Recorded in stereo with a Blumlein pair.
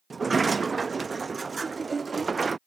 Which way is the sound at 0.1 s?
15° right.